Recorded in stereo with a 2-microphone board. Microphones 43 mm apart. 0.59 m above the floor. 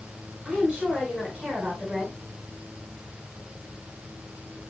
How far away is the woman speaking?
About 5.5 m.